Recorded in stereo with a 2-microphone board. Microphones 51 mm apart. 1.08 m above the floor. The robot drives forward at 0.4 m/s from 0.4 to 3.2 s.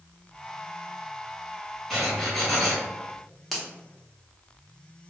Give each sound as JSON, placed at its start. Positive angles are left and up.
{"t": 1.9, "sound": "writing", "side_deg": 0, "distance_m": 1.3}
{"t": 3.5, "sound": "a finger snap", "side_deg": 0, "distance_m": 0.7}